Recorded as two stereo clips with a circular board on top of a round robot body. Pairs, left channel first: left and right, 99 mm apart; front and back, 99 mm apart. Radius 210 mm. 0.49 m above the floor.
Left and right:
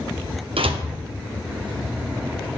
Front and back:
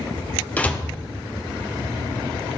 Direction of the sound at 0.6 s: 75° right.